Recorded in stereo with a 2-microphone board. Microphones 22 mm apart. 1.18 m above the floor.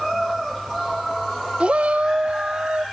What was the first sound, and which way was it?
A shout, 55° right (ahead or behind).